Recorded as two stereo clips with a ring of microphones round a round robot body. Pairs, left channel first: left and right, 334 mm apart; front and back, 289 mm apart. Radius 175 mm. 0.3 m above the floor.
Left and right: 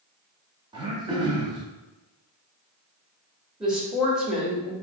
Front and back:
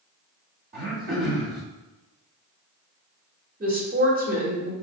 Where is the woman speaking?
175° right, 1.4 m.